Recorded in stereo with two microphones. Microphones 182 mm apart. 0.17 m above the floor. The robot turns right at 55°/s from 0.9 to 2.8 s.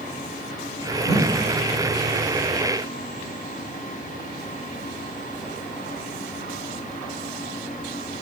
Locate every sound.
1.0 s a whoosh: 35° left (ahead or behind), 1.7 m